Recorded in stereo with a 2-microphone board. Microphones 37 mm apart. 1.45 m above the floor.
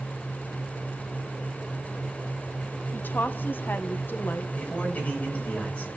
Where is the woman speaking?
60° left (ahead or behind), 1.3 m.